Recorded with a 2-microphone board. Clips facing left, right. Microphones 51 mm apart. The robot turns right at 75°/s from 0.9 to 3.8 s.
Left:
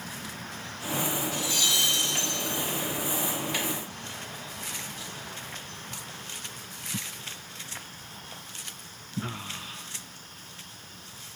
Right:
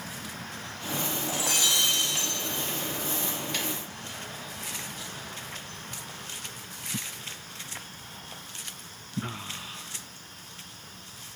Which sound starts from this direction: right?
Breaking glass, at 1.3 s.